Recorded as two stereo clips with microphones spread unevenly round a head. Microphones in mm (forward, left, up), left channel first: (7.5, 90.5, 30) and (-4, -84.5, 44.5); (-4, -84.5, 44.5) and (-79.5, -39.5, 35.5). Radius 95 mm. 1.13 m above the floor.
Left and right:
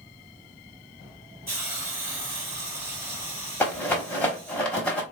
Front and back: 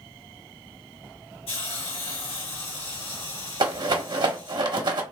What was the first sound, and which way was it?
A hiss, 15° right.